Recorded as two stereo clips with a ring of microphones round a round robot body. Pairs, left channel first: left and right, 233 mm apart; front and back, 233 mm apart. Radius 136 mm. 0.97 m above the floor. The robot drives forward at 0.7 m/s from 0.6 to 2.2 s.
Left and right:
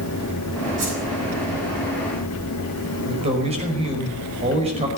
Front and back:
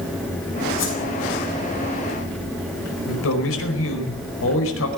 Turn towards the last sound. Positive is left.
turn(degrees=-25)